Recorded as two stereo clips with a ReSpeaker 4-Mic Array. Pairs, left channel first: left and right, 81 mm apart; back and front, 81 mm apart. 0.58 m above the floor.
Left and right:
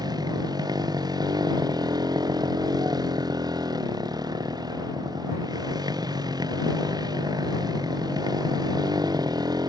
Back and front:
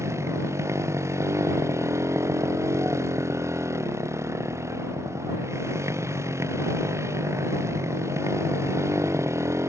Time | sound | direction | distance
0.0 | a motorcycle | 55° right | ?